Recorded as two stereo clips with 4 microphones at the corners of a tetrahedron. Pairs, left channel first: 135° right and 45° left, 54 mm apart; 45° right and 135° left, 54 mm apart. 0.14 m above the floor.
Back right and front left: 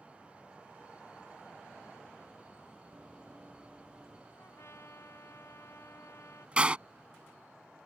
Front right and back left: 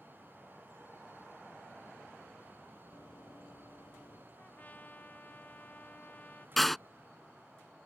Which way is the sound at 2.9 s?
30° right.